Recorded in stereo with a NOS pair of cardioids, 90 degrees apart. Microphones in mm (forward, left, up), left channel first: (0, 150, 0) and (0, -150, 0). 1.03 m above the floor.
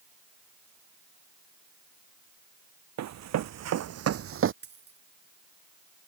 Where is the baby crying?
I don't hear a baby crying.